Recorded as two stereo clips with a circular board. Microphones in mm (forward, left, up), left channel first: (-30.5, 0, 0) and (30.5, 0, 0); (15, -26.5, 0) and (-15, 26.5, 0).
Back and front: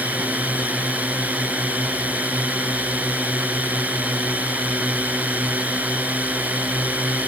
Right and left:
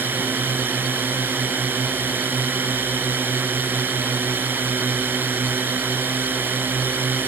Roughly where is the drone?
Ahead left.